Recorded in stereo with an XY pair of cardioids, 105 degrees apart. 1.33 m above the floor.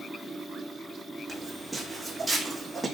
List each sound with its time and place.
0.0 s a fan: 10° right, 1.0 m
1.3 s footsteps: 10° right, 4.5 m